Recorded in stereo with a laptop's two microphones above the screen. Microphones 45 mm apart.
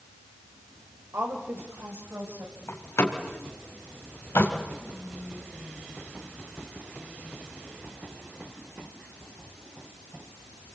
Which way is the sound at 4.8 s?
Centre (ahead or behind).